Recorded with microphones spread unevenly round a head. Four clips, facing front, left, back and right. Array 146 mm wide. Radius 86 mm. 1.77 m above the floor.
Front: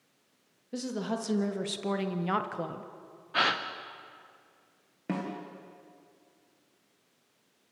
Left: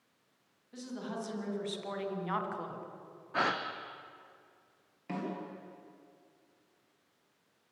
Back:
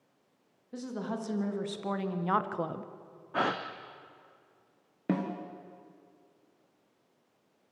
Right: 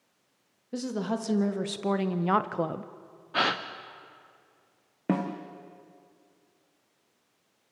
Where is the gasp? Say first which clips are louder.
Right 4 dB, front 1 dB; 150° right, 0.8 m.